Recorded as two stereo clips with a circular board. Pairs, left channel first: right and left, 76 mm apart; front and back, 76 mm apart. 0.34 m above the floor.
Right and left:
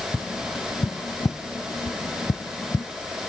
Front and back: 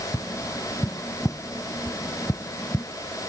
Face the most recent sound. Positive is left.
turn(degrees=-60)